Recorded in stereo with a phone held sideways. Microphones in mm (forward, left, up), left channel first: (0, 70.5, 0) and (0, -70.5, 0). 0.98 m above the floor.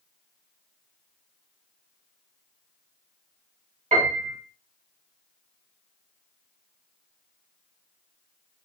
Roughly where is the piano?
Right.